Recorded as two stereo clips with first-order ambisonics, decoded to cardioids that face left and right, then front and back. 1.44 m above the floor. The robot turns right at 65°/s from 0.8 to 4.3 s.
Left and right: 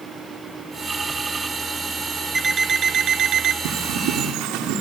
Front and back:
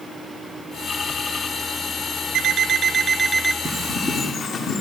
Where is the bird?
100° right, 3.5 m; by 4.8 s 55° right, 3.5 m.